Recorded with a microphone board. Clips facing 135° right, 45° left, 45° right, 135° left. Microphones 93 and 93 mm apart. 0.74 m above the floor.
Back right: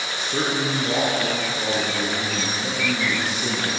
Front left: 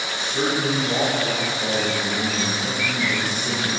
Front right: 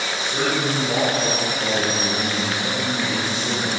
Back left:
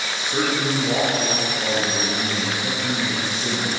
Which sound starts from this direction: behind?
A man speaking, at 0.1 s.